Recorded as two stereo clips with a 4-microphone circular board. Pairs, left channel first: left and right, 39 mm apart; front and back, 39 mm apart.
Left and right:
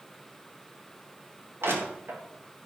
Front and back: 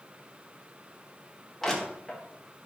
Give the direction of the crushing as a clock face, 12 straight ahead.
3 o'clock.